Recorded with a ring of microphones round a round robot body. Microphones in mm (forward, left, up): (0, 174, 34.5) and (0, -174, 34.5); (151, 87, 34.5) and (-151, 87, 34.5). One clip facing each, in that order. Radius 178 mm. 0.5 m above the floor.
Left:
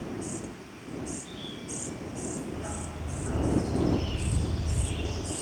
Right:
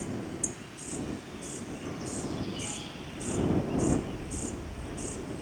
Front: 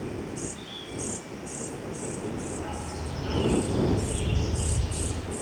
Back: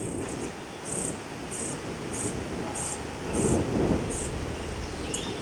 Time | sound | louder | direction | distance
2.5 | a dog barking | left 2 dB, back 1 dB | 60° left | ?